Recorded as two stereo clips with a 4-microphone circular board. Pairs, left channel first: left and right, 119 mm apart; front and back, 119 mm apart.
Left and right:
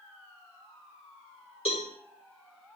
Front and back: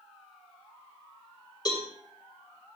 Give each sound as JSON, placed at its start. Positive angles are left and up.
{"t": 1.6, "sound": "a cowbell", "azimuth_deg": 55, "distance_m": 4.0}